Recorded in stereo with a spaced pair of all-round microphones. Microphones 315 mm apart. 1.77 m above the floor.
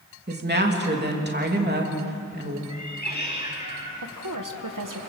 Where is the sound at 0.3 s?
30° right (ahead or behind), 3 m.